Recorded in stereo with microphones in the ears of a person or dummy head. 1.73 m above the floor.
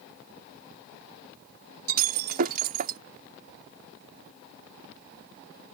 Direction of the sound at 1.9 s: 50° right (ahead or behind).